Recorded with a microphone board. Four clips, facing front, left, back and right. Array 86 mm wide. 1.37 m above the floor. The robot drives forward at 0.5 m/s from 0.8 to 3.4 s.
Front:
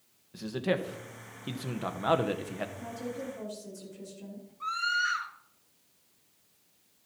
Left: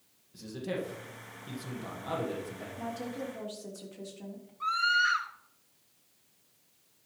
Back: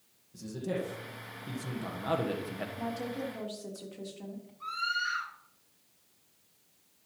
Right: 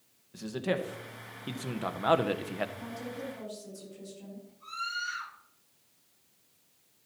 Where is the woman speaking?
145° left, 3 m.